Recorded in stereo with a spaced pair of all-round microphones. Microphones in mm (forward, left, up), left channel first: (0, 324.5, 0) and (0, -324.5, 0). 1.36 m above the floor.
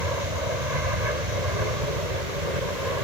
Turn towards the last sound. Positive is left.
turn(degrees=-80)